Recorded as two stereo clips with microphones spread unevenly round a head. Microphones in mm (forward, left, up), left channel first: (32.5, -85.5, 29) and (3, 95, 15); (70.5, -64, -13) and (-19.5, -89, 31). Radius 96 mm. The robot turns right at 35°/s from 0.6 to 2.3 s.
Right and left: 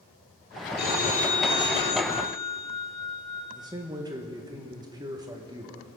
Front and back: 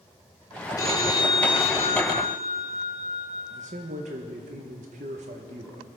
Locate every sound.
0.8 s a phone ringing: 45° right, 2.5 m; by 3.4 s 10° left, 2.5 m
3.5 s a man speaking: 165° left, 1.4 m